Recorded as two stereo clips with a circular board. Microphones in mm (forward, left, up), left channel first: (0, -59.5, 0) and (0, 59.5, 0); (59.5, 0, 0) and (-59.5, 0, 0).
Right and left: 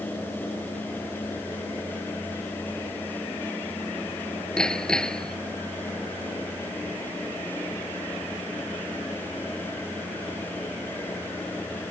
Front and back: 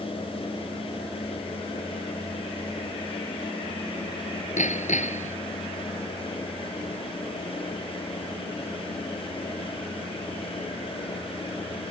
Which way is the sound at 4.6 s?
5° right.